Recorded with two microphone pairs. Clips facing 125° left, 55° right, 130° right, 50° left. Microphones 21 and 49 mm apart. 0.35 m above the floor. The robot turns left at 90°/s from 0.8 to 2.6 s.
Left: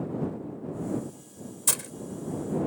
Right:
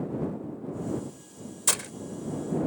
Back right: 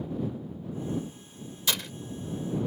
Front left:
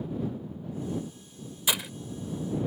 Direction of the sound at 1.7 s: 5° right.